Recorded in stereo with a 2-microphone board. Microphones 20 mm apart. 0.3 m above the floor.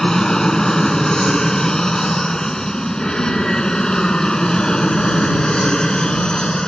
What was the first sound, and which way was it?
An aircraft, 30° left (ahead or behind).